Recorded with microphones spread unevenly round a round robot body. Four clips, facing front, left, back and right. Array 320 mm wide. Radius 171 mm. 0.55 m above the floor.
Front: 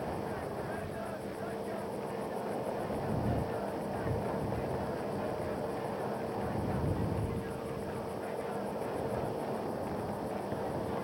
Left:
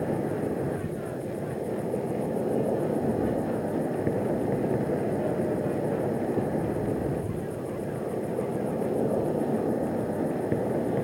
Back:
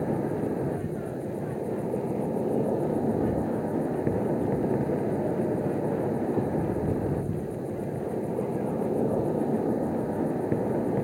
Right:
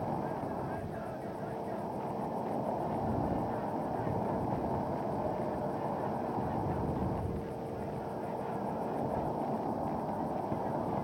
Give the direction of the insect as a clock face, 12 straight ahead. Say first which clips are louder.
Left 7 dB, back 9 dB; 7 o'clock.